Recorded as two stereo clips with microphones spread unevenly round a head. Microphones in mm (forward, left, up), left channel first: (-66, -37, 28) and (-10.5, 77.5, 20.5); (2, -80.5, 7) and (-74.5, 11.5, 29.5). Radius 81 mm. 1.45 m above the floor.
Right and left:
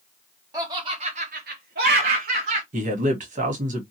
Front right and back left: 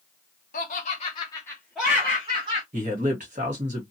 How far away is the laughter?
About 1.1 m.